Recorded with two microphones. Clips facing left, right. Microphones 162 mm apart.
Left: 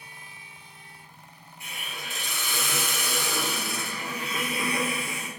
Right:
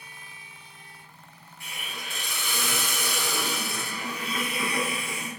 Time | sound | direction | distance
1.6 | a hiss | 20° left (ahead or behind) | 1.1 m